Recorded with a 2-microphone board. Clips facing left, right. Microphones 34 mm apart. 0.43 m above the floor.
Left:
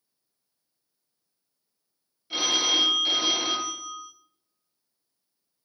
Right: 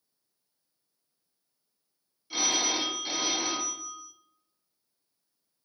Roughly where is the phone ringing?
Left.